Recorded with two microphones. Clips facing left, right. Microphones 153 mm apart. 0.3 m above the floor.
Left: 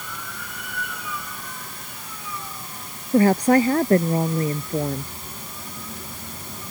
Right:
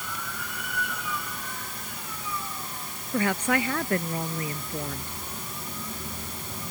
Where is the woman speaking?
35° left (ahead or behind).